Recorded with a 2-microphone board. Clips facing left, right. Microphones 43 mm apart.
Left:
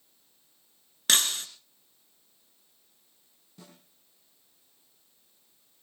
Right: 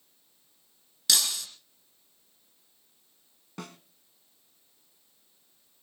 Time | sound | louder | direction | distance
1.1 | breaking glass | left 2 dB | 45° left (ahead or behind) | 2.5 m
3.6 | a snare drum | right 10 dB | 80° right | 1.5 m